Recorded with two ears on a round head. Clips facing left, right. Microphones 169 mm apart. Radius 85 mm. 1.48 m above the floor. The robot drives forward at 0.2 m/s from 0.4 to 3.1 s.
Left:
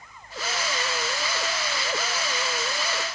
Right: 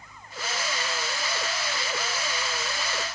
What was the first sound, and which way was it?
Only background noise.